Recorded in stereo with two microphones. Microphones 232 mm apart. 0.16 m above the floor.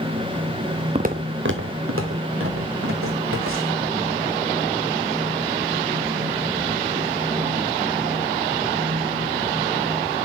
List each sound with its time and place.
0.9 s footsteps: 30° right (ahead or behind), 0.7 m; by 3.8 s 85° right, 4 m